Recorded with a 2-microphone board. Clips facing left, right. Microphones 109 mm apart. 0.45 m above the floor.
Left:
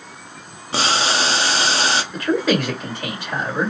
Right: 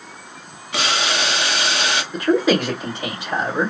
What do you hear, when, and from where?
0.7 s boiling: 30° left (ahead or behind), 0.7 m
2.1 s a man speaking: 20° right (ahead or behind), 1.6 m